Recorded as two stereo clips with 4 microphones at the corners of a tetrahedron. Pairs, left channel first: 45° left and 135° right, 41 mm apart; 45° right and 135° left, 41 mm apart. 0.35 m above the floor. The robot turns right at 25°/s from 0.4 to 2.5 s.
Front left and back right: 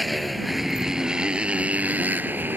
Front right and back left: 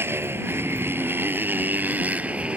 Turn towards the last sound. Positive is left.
turn(degrees=-170)